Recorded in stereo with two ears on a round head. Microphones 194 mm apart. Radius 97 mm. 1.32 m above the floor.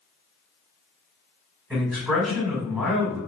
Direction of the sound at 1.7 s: 5° right (ahead or behind).